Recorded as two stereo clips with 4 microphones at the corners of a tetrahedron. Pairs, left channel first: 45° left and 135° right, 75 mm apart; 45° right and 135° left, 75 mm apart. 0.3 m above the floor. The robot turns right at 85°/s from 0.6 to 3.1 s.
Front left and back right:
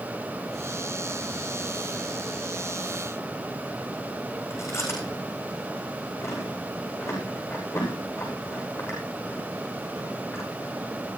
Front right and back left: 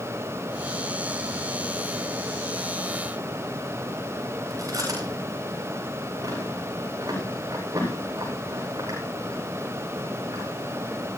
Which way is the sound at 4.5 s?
95° left.